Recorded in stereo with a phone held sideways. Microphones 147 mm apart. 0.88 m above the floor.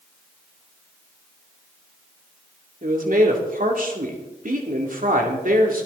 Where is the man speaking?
70° right (ahead or behind), 2.5 m.